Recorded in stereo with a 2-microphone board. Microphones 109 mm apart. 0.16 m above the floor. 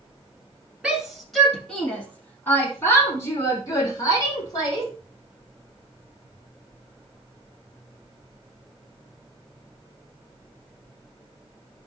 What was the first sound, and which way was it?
A shout, 10° right (ahead or behind).